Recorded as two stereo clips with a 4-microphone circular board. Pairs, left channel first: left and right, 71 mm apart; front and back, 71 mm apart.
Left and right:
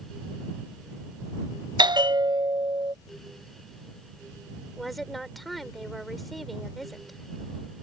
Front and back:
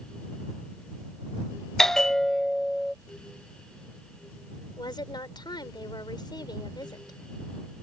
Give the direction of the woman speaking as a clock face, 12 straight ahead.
12 o'clock.